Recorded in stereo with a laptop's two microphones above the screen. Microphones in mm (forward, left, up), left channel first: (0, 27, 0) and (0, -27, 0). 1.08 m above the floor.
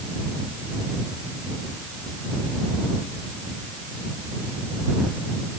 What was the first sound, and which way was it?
Only background noise.